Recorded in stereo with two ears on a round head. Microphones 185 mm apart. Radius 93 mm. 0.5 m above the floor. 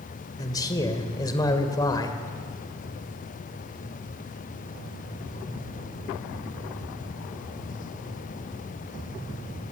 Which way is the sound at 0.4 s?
20° left (ahead or behind).